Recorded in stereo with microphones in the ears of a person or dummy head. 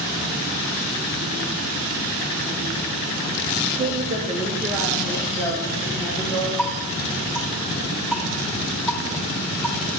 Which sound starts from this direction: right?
A woman speaking, at 3.8 s.